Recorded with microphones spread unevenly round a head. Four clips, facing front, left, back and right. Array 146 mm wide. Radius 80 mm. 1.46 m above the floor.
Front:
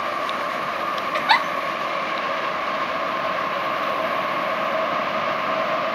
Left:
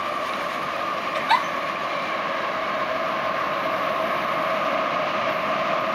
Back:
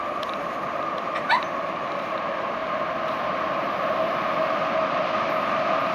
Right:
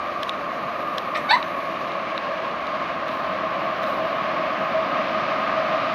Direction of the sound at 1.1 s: Straight ahead.